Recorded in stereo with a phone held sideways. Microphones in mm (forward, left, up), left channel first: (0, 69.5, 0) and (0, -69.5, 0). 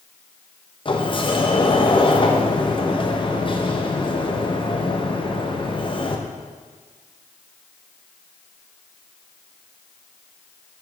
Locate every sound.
0.8 s a sliding door: 40° left (ahead or behind), 0.8 m